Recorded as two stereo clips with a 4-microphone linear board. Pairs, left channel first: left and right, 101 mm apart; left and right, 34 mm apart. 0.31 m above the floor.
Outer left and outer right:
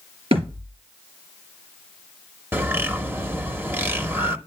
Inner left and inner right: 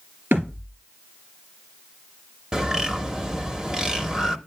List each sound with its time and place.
0.3 s a thud: 75° right (ahead or behind), 2.5 m
2.5 s a bird: 20° right (ahead or behind), 0.8 m